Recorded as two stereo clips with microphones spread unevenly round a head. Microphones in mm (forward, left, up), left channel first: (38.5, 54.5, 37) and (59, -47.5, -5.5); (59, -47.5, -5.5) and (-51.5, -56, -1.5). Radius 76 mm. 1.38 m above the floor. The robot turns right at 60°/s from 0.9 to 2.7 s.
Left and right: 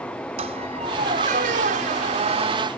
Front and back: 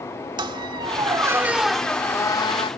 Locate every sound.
0.4 s a squeak: 135° right; by 2.7 s 30° right